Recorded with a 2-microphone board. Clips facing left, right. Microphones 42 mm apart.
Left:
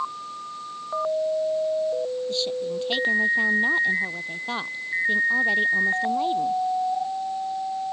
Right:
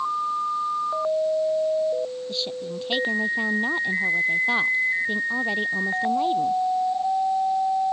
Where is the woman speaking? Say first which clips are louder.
Left 3 dB; centre (ahead or behind).